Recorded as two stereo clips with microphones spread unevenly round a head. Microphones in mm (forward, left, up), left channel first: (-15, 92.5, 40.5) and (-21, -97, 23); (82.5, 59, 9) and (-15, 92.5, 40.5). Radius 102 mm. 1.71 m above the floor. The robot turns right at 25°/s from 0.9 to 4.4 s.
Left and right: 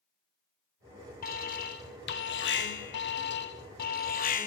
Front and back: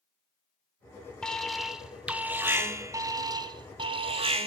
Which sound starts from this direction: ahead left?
An alarm, at 1.2 s.